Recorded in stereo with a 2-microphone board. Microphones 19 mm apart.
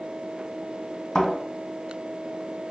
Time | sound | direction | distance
1.1 | a thud | 45° left (ahead or behind) | 1.9 m